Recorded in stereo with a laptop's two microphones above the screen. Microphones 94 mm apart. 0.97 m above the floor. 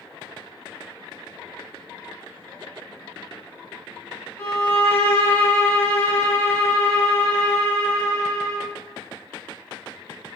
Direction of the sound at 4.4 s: 25° left (ahead or behind).